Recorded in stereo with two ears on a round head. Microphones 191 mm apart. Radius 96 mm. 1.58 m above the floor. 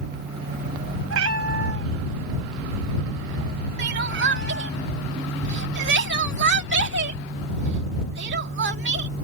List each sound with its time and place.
1.1 s a cat meowing: 75° right (ahead or behind); by 4.8 s 55° right (ahead or behind)
3.8 s crying: 55° right (ahead or behind)